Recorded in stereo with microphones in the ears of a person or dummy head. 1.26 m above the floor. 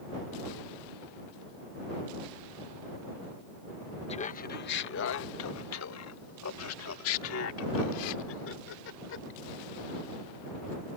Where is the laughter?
30° left (ahead or behind); by 9.3 s 75° left (ahead or behind).